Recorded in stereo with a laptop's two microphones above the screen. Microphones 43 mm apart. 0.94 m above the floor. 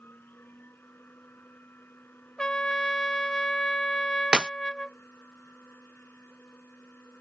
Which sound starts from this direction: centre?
A trumpet, at 2.4 s.